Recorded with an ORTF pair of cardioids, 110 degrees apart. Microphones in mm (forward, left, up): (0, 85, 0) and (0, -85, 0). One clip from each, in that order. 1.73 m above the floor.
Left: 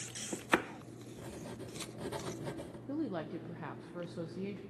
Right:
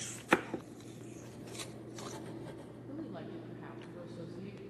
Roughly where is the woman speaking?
Ahead left.